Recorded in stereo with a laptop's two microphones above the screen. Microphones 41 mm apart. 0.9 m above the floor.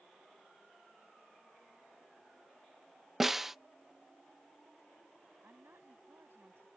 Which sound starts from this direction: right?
A woman speaking, at 5.4 s.